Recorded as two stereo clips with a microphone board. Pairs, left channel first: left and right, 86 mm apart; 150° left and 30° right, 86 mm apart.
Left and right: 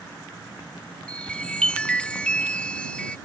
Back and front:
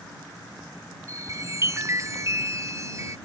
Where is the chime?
15° left.